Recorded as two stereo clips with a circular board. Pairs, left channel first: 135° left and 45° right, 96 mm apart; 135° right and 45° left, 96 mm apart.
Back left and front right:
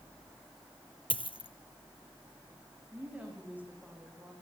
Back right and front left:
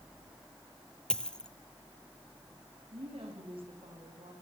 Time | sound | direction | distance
1.1 | a dropped coin | 145° left | 1.3 m
2.9 | a woman speaking | 25° left | 7 m